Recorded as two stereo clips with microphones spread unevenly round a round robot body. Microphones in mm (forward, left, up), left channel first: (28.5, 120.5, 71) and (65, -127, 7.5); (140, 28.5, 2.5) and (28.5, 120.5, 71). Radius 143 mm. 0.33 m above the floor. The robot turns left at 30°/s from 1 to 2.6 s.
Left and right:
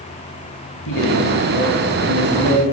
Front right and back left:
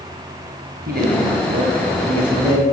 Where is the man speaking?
110° left, 2.5 m; by 2.6 s 65° left, 2.5 m.